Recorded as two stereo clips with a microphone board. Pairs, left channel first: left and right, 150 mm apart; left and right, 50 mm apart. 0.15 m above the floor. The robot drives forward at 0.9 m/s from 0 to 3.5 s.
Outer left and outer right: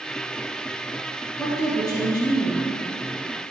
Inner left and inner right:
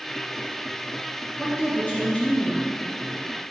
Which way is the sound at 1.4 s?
25° left (ahead or behind).